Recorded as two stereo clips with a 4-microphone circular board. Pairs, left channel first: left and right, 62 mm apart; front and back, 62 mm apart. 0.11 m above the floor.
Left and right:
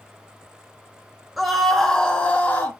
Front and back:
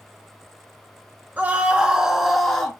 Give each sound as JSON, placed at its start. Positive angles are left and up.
{"t": 1.4, "sound": "a scream", "azimuth_deg": -170, "distance_m": 1.8}